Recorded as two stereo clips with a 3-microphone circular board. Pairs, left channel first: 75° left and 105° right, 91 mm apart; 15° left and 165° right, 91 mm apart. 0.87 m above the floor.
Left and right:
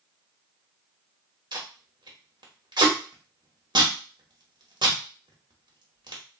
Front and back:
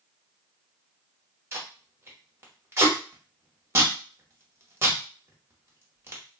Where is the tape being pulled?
110° right, 1.0 m.